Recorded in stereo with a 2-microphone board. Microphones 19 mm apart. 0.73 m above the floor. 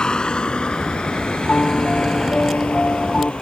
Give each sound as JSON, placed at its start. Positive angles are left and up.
{"t": 0.0, "sound": "a vehicle", "side_deg": 50}
{"t": 1.5, "sound": "a piano", "side_deg": 65}